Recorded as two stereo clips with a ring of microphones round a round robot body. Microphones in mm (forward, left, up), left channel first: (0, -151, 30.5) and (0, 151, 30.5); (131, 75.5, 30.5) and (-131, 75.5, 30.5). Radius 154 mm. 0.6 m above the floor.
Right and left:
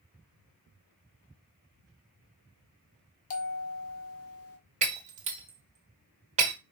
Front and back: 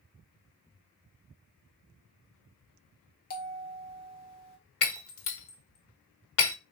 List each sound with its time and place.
3.3 s a bell: 55° right, 1.4 m
4.8 s breaking glass: 20° left, 1.3 m